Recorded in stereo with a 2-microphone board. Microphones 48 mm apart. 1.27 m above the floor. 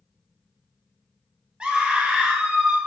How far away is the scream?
About 1.3 m.